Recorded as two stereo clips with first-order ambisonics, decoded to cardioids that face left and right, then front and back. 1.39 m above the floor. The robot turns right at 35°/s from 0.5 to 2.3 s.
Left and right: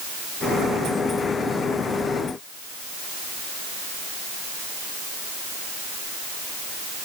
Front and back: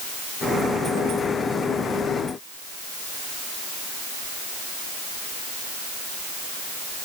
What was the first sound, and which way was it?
Only background noise.